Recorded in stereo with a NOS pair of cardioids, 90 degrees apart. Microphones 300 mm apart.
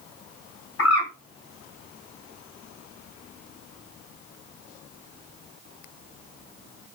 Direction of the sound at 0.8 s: 55° left.